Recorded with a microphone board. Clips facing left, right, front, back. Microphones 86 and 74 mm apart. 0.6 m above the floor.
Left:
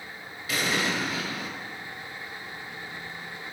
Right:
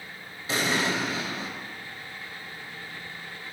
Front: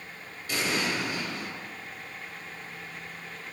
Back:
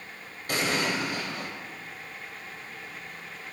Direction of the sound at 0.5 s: 150° right.